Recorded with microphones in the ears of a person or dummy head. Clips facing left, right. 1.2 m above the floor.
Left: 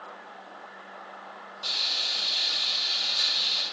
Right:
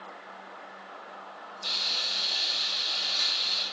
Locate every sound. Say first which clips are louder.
1.6 s frying: even; 35° left (ahead or behind), 1.7 m